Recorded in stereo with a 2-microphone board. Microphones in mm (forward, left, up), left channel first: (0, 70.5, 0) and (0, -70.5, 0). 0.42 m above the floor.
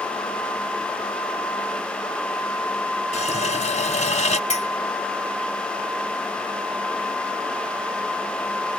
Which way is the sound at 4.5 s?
50° left (ahead or behind).